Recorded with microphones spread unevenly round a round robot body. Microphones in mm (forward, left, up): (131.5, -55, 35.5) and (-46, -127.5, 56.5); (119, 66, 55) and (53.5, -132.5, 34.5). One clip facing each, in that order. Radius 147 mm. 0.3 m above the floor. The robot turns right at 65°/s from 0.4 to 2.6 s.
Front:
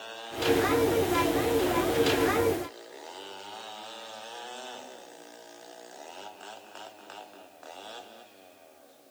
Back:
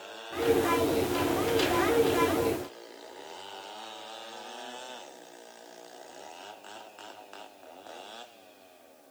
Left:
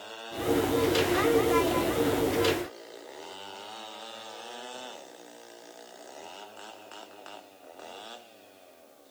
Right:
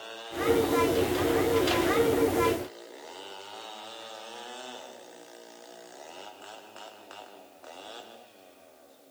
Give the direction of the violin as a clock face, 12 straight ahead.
No violin in this recording.